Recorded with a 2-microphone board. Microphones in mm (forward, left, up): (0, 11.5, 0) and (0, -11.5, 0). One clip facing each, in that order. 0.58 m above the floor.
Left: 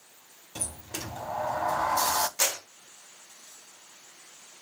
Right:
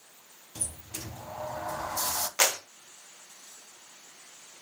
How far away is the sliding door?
About 0.5 m.